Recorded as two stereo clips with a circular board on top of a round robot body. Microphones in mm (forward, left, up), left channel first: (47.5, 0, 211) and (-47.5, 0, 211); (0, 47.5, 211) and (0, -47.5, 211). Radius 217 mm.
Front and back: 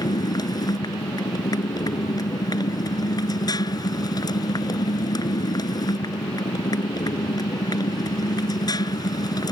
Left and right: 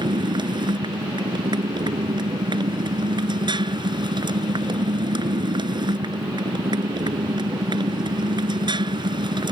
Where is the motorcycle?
50° right.